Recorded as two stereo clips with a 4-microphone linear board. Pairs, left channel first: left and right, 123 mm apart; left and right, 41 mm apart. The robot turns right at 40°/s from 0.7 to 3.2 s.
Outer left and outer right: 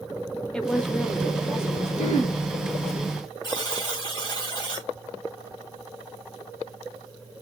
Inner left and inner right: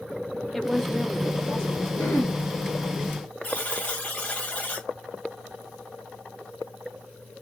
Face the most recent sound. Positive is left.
turn(degrees=35)  # may be behind; listen again after turning